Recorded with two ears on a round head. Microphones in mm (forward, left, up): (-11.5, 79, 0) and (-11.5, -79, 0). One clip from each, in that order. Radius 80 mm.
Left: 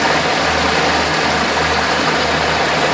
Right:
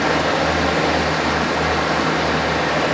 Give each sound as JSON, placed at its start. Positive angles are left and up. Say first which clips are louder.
{"t": 0.0, "sound": "running water", "louder": "left 3 dB", "side_deg": 50, "distance_m": 1.1}